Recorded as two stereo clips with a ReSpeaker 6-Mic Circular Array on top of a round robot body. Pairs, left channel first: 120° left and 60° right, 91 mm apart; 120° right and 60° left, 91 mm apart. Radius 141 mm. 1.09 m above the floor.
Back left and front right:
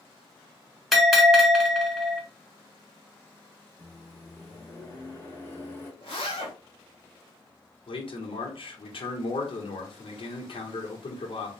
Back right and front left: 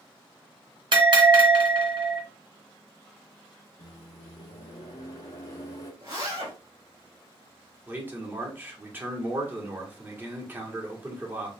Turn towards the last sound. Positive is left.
turn(degrees=130)